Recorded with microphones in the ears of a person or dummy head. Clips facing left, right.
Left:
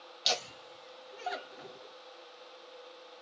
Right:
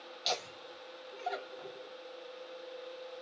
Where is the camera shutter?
I don't hear a camera shutter.